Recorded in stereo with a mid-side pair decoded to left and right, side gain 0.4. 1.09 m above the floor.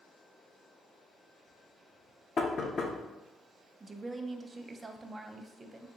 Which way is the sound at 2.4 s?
50° left.